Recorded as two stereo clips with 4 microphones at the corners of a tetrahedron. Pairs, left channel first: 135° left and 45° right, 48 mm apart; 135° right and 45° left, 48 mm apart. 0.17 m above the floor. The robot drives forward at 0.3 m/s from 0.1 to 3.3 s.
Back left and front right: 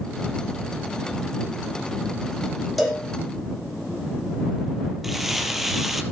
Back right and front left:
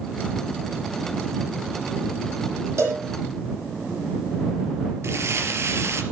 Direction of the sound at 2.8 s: 45° left.